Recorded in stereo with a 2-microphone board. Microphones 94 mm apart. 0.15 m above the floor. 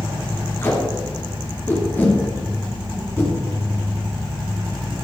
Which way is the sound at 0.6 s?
25° left (ahead or behind).